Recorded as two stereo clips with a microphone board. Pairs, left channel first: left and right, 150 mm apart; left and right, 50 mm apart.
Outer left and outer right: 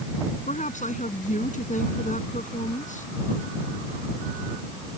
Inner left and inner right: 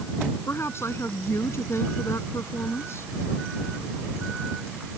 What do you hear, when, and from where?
0.5 s a woman speaking: 55° left (ahead or behind)